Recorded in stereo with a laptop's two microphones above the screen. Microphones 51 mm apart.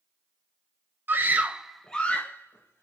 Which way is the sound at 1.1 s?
45° right (ahead or behind).